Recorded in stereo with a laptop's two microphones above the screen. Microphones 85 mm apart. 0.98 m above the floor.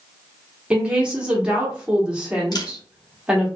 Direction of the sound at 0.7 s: 10° right (ahead or behind).